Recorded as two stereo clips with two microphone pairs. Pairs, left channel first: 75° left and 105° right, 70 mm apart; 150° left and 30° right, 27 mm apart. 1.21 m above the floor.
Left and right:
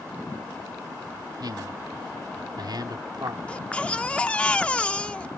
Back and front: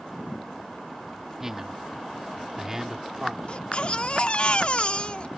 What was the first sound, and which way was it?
A man speaking, 100° right.